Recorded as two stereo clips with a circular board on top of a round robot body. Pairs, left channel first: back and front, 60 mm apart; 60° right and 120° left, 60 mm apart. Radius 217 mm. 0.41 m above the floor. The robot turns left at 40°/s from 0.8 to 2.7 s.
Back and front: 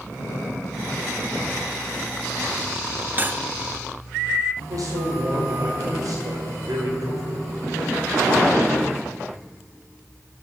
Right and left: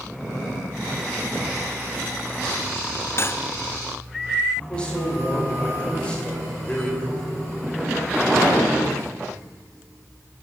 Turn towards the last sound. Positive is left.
turn(degrees=15)